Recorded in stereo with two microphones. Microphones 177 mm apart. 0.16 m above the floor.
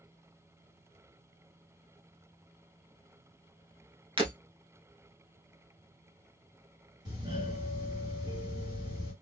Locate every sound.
4.2 s breaking glass: 30° right (ahead or behind), 1.4 m
7.0 s a doorbell: 25° right (ahead or behind), 2.5 m